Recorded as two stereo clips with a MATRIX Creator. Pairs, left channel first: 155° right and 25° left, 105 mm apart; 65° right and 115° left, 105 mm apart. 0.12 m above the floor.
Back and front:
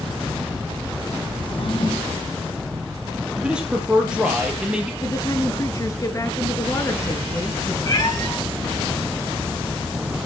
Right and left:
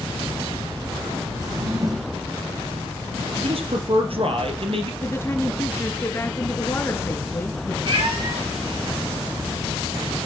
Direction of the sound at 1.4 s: 165° left.